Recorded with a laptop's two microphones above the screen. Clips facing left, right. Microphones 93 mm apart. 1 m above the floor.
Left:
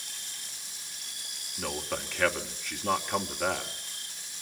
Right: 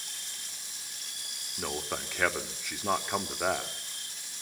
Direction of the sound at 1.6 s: 10° right (ahead or behind).